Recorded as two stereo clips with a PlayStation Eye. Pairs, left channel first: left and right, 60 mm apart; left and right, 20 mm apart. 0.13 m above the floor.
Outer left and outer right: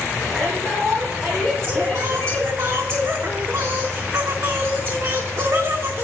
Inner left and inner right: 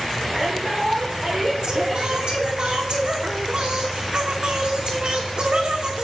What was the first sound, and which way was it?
A shout, 5° right (ahead or behind).